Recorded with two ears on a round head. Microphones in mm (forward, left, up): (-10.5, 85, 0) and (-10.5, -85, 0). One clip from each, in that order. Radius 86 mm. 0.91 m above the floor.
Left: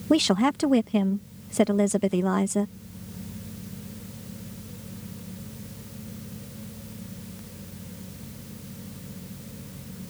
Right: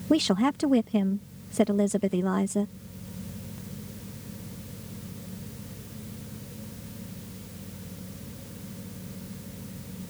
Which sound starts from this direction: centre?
A woman speaking, at 0.1 s.